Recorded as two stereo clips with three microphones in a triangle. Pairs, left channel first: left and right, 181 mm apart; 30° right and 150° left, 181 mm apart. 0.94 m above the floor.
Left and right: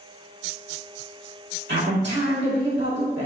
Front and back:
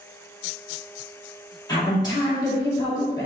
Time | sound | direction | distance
1.7 | a woman speaking | 100° right | 1.9 m